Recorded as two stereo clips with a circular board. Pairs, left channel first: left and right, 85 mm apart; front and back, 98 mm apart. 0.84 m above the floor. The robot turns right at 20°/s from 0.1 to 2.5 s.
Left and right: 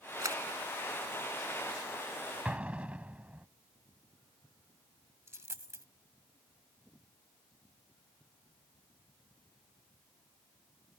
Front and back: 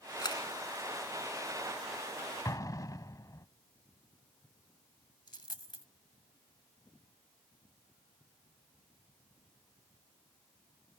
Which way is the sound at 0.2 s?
45° right.